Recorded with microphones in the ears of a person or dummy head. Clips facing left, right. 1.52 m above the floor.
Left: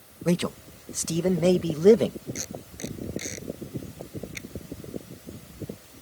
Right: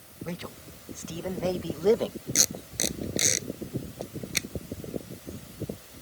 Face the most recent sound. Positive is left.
turn(degrees=-80)